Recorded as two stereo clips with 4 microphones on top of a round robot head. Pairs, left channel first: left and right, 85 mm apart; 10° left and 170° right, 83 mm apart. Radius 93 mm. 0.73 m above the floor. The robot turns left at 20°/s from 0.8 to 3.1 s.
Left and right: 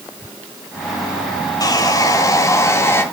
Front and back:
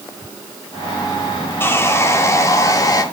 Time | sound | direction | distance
1.6 | sawing | 65° left | 1.5 m